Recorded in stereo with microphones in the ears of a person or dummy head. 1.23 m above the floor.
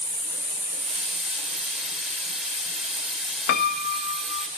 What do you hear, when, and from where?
0.7 s a hiss: 5° right (ahead or behind), 4 m
3.5 s a piano: 50° left (ahead or behind), 0.8 m